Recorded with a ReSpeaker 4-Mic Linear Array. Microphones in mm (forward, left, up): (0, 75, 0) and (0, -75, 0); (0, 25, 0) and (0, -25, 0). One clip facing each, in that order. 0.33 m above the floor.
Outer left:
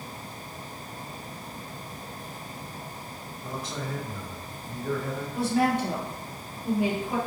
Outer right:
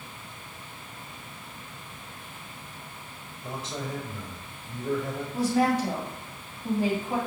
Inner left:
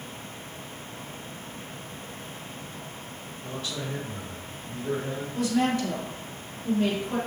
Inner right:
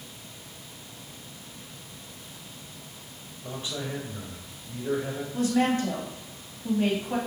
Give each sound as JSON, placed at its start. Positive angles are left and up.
{"t": 3.4, "sound": "a man speaking", "side_deg": -25, "distance_m": 1.0}
{"t": 5.3, "sound": "a woman speaking", "side_deg": -40, "distance_m": 1.8}